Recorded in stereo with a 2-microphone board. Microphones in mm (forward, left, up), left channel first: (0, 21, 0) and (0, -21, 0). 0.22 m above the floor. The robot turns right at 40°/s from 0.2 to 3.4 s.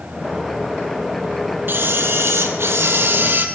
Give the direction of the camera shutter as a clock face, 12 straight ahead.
4 o'clock.